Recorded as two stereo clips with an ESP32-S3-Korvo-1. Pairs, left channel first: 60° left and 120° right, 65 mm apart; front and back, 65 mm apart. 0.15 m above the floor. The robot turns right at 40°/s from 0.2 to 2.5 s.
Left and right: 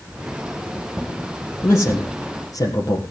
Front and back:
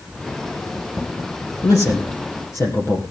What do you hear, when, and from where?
1.6 s a man speaking: 10° left, 3 m; by 3.0 s 45° left, 3 m